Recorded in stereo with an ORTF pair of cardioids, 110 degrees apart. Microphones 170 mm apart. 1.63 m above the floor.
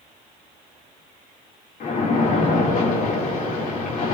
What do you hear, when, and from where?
1.8 s a splash: 60° left, 3 m